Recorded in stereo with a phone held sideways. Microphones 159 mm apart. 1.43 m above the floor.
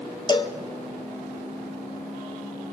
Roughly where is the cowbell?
Left.